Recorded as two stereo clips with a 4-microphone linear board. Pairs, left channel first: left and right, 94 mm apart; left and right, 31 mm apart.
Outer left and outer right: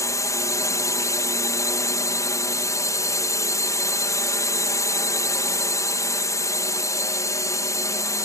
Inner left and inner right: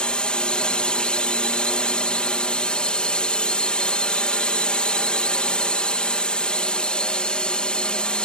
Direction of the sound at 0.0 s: 35° left (ahead or behind).